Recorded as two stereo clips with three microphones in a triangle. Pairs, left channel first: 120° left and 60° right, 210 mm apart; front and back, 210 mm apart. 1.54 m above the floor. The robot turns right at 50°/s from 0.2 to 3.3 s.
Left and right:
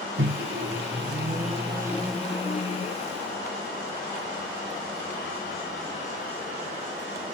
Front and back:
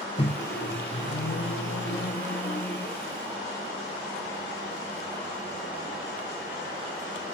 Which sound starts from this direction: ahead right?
A microwave, at 0.2 s.